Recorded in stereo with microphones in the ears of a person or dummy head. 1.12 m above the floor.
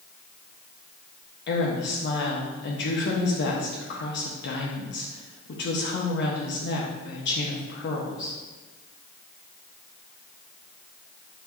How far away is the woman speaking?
About 1.2 m.